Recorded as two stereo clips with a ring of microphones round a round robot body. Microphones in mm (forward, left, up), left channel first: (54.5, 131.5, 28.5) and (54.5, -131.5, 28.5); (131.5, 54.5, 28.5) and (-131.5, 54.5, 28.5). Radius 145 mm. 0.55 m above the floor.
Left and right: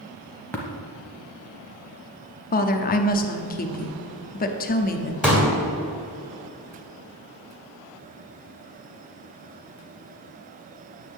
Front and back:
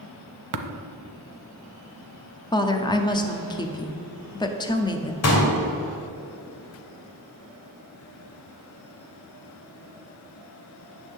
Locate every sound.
0.5 s tapping: 175° left, 0.8 m
2.5 s a woman speaking: 65° left, 0.7 m
5.2 s a pop: 5° right, 2.5 m